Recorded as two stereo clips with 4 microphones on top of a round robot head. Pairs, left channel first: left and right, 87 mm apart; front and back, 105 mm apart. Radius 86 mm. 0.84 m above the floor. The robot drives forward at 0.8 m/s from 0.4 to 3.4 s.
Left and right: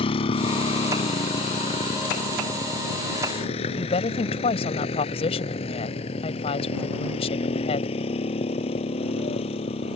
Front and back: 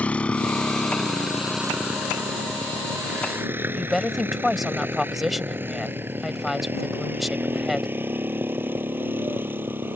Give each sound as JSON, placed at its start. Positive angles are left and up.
{"t": 0.0, "sound": "a motorcycle", "azimuth_deg": 80}
{"t": 3.7, "sound": "a woman speaking", "azimuth_deg": 95}